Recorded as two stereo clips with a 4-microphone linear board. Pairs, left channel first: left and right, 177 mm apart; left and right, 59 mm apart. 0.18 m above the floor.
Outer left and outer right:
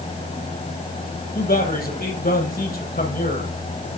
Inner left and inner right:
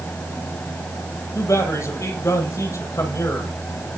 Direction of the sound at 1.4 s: 60° left (ahead or behind).